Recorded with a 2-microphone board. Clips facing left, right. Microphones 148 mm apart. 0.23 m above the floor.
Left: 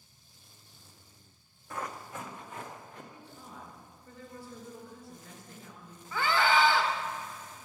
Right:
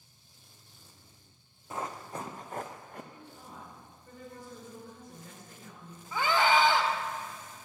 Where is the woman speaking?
20° right (ahead or behind), 3 m.